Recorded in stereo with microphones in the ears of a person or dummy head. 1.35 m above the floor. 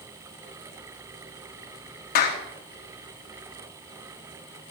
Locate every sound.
2.1 s a clap: 50° left (ahead or behind), 2 m